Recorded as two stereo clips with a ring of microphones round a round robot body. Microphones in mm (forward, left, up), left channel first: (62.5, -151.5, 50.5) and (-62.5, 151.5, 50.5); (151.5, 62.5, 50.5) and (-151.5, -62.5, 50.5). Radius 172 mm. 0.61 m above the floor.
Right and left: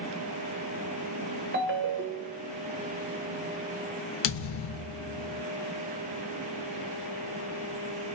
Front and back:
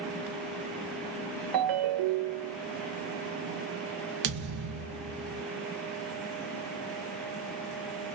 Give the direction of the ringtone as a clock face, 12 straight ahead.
6 o'clock.